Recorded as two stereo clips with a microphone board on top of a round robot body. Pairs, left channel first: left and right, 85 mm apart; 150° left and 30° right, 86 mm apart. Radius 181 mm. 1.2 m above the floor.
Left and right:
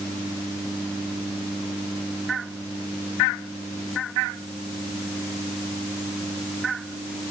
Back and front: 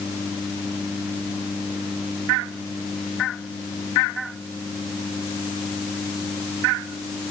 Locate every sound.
Only background noise.